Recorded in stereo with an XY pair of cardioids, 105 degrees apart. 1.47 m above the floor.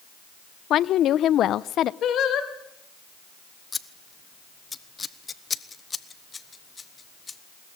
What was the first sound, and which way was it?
A woman speaking, 70° left.